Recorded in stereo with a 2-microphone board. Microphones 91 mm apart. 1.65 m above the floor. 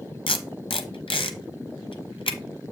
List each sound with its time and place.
0.3 s tape being pulled: 75° left (ahead or behind), 0.9 m